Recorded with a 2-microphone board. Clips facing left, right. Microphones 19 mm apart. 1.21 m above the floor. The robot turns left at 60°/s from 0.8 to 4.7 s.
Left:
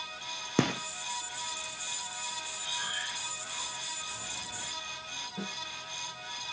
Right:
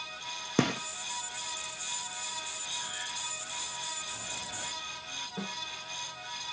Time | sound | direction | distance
0.6 | a gunshot | 5° right (ahead or behind) | 0.6 m
2.6 | breathing | 50° left | 3 m
5.4 | a snare drum | 70° right (ahead or behind) | 5.5 m